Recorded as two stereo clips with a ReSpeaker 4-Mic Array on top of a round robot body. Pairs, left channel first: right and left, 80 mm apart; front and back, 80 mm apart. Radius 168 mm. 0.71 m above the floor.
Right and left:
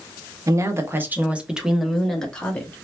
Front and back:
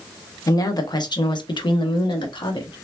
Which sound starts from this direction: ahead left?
A woman speaking, at 0.5 s.